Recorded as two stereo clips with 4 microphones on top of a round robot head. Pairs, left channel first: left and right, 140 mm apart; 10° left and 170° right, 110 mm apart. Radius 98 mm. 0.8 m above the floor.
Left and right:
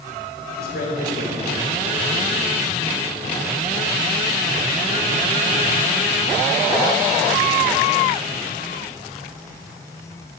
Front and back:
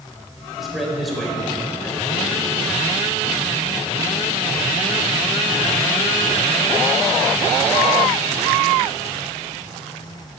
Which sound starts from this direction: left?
A man speaking, at 0.6 s.